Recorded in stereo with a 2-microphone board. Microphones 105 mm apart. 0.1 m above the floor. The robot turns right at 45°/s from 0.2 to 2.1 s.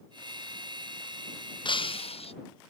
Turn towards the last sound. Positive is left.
turn(degrees=70)  # may be behind; listen again after turning